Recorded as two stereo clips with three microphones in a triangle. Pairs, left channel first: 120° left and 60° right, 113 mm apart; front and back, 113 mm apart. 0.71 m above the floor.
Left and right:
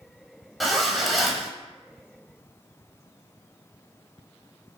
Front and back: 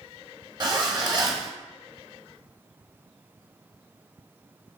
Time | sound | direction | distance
0.6 | a zipper | 150° right | 0.6 m